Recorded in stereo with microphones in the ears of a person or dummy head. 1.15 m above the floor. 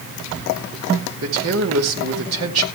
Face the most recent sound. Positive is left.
turn(degrees=-80)